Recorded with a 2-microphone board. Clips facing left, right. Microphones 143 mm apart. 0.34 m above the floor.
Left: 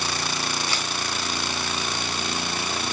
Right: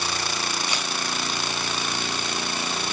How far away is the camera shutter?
About 1.2 m.